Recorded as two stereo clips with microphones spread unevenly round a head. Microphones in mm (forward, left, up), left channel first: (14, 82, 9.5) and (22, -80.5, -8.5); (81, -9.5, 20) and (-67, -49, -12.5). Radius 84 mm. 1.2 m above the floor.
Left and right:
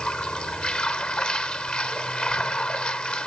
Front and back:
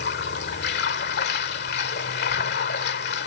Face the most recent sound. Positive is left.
turn(degrees=10)